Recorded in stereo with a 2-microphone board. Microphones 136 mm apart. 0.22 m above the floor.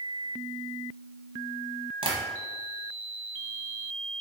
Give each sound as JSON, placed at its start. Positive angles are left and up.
{"t": 2.0, "sound": "tapping", "side_deg": -40, "distance_m": 0.9}